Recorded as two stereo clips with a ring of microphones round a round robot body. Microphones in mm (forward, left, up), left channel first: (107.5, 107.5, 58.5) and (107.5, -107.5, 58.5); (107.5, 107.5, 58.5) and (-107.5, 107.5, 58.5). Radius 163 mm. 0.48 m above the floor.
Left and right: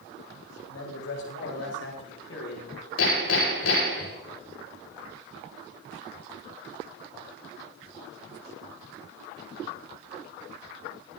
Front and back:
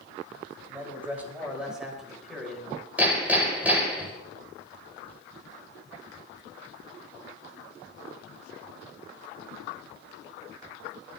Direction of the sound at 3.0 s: 100° left.